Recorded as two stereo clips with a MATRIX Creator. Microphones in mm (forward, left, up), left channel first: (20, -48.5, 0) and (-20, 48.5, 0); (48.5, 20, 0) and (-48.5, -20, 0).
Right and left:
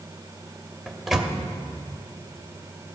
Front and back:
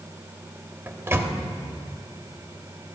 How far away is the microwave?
About 0.8 m.